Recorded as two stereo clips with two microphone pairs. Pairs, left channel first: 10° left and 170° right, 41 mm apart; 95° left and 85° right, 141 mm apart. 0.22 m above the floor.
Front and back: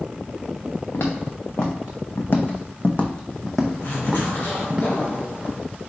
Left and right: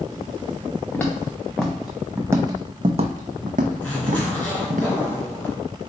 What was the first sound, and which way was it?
Footsteps, 20° left.